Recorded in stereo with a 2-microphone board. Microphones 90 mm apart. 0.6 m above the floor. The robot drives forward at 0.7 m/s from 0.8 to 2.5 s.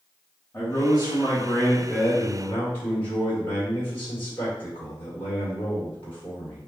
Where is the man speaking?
30° left (ahead or behind), 1.2 m; by 6.6 s 20° left (ahead or behind), 1.6 m.